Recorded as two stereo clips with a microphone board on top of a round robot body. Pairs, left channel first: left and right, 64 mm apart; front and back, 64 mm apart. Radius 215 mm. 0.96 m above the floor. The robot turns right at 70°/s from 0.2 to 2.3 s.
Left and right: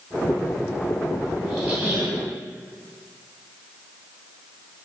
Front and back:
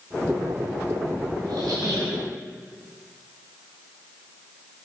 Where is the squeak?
170° left, 1.6 m; by 2.2 s 135° right, 1.6 m.